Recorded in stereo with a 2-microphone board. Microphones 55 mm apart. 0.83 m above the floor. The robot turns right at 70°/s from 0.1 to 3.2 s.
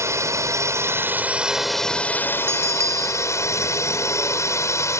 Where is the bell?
135° right; by 3.3 s 80° right.